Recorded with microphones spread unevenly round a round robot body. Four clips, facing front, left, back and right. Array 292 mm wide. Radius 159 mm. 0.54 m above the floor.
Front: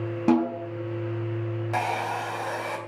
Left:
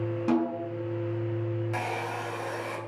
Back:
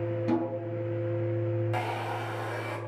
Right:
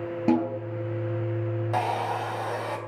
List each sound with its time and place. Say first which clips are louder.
0.3 s a snare drum: right 3 dB, front 8 dB; 30° right, 3.5 m
1.7 s a hair dryer: right 6 dB, front 5 dB; 45° right, 3 m